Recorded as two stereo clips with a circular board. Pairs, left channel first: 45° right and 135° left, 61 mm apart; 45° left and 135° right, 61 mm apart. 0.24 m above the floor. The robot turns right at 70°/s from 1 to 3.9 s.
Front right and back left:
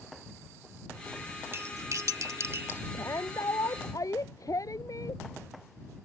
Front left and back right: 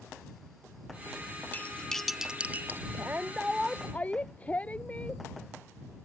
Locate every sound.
1.5 s cutlery clinking: 95° left; by 2.8 s 175° right
2.9 s a shout: 90° right; by 5.2 s 20° right